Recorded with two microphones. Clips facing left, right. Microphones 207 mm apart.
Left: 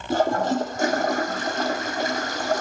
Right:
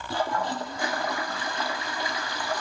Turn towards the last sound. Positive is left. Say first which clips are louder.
# left 8 dB
turn(degrees=45)  # may be behind; listen again after turning